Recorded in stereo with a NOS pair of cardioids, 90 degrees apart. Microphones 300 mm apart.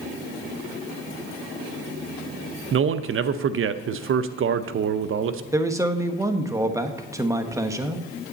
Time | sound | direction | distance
2.7 | a man speaking | 45° right | 0.7 m
5.5 | a man speaking | 10° right | 1.2 m